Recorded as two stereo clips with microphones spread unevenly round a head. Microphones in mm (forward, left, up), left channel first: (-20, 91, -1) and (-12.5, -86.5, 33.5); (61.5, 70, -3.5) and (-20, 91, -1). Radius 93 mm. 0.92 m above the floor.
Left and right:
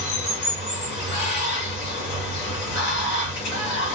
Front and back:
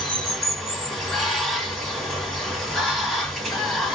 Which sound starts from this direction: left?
Running water, at 0.0 s.